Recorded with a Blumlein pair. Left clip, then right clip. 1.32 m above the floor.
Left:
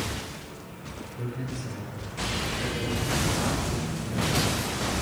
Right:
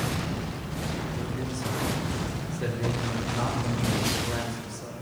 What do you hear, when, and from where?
1.2 s a man speaking: 55° right, 2.5 m; by 4.9 s 35° right, 5.5 m